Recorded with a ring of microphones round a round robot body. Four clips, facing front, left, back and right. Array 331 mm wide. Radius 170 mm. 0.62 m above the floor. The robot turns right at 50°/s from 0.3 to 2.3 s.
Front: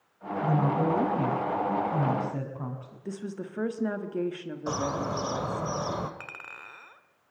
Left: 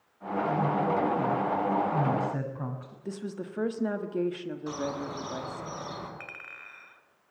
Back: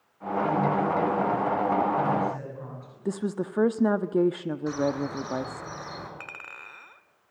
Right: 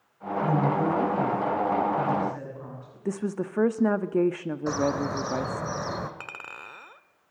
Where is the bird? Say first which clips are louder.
Right 8 dB, back 2 dB; 40° right, 2 m.